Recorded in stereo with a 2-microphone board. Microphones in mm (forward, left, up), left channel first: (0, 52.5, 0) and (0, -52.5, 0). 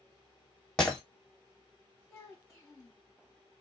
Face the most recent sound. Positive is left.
turn(degrees=0)  # may be behind; listen again after turning